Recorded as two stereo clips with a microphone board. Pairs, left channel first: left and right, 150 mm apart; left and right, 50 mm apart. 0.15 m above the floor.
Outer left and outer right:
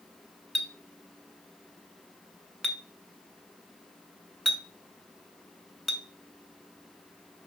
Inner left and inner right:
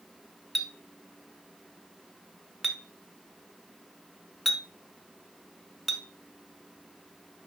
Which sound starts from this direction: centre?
A clink, at 0.6 s.